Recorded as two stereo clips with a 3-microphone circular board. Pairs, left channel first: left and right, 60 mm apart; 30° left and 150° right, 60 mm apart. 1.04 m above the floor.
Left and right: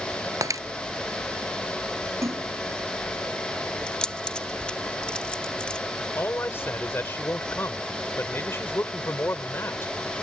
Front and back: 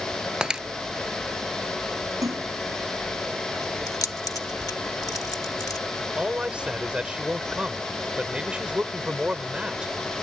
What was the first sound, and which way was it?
Breaking glass, 75° right.